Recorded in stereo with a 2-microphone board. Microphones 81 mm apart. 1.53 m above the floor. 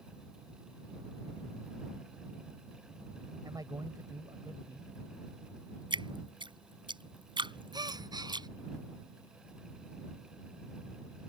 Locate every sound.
3.4 s a man speaking: 50° right (ahead or behind)
5.9 s dripping: 80° right
7.7 s a gasp: 60° right (ahead or behind)